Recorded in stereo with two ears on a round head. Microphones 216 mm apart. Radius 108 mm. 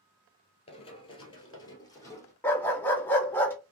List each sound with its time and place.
0.7 s running footsteps: 25° left (ahead or behind), 1.6 m; by 2.3 s 15° left (ahead or behind), 2 m
2.4 s a dog barking: 10° left (ahead or behind), 0.9 m